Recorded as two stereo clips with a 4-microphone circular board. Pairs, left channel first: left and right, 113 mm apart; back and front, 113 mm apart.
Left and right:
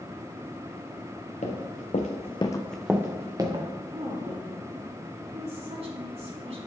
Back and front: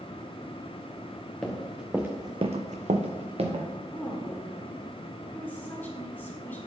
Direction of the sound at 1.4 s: 95° left.